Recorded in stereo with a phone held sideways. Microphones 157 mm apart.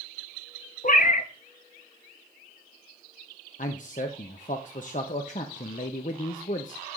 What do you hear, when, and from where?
0.8 s a cat meowing: 55° left (ahead or behind), 0.5 m
3.6 s a man speaking: 50° left (ahead or behind), 0.6 m